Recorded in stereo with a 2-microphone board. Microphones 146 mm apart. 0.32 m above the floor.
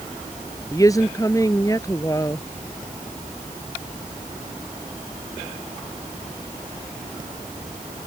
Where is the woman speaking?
25° left (ahead or behind).